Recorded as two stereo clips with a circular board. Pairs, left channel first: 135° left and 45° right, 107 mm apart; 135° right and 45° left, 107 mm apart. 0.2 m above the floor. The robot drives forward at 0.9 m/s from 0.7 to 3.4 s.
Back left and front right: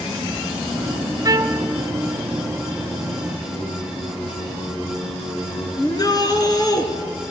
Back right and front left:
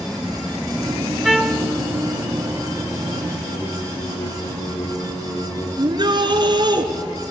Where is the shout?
85° left, 2.5 m.